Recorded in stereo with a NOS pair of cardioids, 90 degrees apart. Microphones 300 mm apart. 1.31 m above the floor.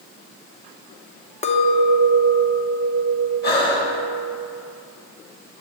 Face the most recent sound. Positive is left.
turn(degrees=35)